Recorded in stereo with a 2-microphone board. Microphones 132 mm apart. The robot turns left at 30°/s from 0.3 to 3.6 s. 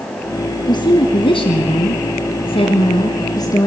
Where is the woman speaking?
130° left, 1.5 m; by 3.7 s 40° left, 1.5 m.